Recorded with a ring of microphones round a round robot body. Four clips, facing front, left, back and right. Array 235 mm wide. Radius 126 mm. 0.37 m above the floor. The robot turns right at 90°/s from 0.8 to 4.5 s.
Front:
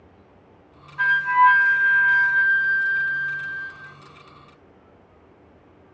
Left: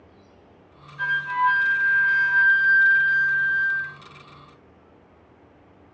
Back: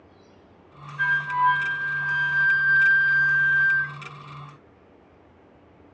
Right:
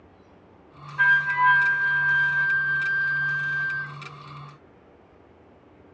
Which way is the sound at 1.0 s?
65° right.